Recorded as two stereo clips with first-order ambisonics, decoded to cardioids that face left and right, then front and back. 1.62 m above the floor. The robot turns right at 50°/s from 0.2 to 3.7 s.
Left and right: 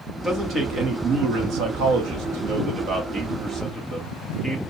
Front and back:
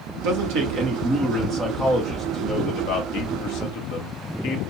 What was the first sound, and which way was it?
A man speaking, 170° right.